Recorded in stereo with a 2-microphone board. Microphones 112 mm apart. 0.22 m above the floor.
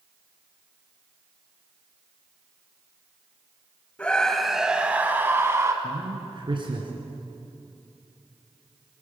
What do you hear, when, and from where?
4.0 s a scream: 10° left (ahead or behind), 1.0 m; by 5.7 s 25° right (ahead or behind), 1.4 m
5.8 s a man speaking: 50° right (ahead or behind), 2.5 m